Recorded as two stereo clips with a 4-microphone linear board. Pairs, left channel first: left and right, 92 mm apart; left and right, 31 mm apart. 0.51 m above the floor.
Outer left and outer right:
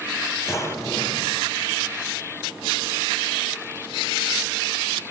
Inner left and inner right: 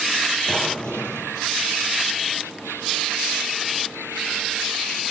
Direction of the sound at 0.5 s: 30° left (ahead or behind).